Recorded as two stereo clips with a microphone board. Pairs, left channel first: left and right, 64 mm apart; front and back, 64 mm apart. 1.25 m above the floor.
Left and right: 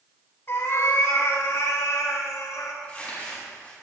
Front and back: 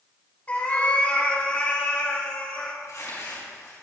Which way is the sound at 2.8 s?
20° left.